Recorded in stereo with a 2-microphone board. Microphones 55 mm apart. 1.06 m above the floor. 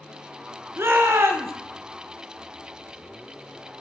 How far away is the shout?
About 0.9 m.